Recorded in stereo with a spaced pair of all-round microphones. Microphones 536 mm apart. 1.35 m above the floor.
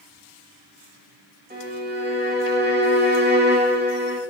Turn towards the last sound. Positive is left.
turn(degrees=-20)  # may be behind; listen again after turning